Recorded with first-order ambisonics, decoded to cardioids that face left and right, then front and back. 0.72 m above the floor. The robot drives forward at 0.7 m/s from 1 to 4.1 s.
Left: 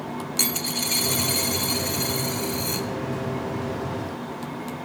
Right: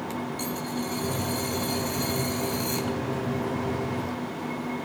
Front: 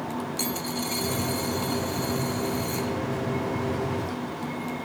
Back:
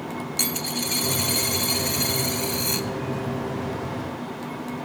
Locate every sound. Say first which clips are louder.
0.4 s a dropped coin: left 6 dB, back 6 dB; 115° left, 0.6 m; by 2.9 s 165° left, 1.6 m